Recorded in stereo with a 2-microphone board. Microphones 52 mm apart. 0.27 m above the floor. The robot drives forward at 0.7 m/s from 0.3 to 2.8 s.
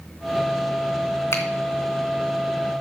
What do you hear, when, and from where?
1.3 s a finger snap: 60° left (ahead or behind), 2.5 m; by 1.4 s 65° left (ahead or behind), 2.5 m